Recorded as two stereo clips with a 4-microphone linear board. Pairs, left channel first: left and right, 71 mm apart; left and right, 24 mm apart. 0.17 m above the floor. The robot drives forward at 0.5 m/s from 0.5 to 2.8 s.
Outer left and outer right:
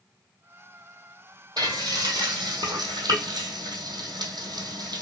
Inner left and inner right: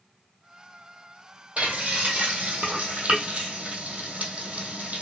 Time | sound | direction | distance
1.6 | frying | 70° right (ahead or behind) | 1.4 m